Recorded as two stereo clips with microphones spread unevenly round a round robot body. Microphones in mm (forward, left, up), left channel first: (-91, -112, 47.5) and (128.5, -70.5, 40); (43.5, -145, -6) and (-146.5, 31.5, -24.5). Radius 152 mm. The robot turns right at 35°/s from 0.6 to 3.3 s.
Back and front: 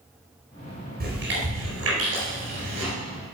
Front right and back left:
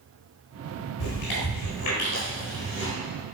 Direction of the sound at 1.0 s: 35° right.